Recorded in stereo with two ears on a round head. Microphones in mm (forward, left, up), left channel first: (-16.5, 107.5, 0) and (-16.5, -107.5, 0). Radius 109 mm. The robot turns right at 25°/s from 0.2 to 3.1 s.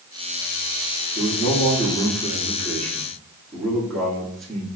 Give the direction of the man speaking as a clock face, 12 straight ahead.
8 o'clock.